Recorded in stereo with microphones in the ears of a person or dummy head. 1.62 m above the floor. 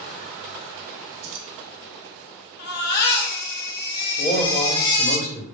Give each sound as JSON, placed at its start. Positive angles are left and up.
{"t": 1.2, "sound": "keys jangling", "side_deg": -55, "distance_m": 1.3}
{"t": 2.6, "sound": "a baby crying", "side_deg": 55, "distance_m": 1.8}
{"t": 4.2, "sound": "a man speaking", "side_deg": 40, "distance_m": 3.0}